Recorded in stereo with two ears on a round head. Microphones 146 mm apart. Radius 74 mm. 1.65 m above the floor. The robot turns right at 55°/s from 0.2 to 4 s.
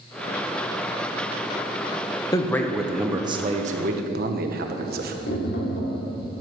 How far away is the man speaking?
About 1.2 m.